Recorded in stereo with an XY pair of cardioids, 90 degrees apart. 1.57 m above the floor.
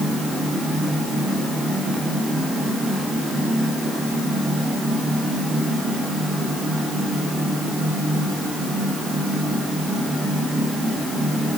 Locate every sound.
Only background noise.